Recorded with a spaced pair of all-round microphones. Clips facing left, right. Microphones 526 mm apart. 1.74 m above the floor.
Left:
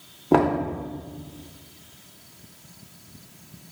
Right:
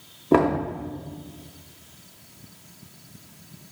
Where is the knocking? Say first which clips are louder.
Even; 5° left (ahead or behind), 0.5 m.